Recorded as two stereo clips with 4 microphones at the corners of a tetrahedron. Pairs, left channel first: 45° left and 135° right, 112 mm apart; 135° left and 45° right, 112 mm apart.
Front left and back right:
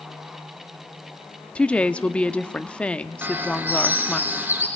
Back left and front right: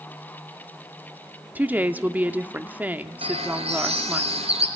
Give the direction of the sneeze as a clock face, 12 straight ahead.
No sneeze in this recording.